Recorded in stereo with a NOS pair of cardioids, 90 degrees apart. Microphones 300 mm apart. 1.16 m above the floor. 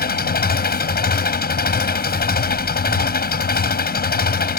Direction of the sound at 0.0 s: 30° left.